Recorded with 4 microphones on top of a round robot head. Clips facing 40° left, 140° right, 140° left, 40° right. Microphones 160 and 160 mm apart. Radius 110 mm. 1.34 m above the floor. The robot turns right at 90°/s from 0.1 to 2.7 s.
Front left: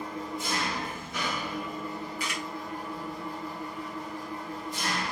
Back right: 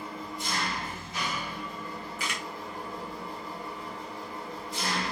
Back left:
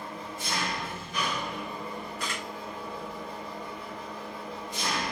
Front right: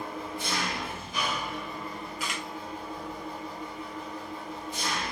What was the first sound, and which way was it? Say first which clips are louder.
An engine running: front left 3 dB, front right 3 dB; 70° right.